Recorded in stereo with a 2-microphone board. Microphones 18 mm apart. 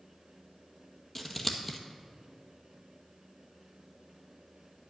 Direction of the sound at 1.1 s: 10° left (ahead or behind).